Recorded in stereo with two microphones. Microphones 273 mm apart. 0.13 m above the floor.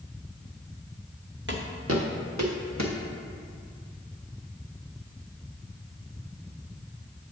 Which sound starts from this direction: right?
Footsteps, at 1.5 s.